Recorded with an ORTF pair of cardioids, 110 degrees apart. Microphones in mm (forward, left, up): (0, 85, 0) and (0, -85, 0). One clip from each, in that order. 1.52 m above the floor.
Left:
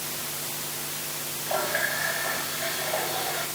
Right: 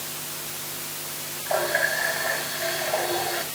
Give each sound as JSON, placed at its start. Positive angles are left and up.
{"t": 1.5, "sound": "a running tap", "azimuth_deg": -30, "distance_m": 7.5}